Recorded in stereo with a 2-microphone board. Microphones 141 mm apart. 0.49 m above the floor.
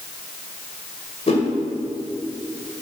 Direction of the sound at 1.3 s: 45° left (ahead or behind).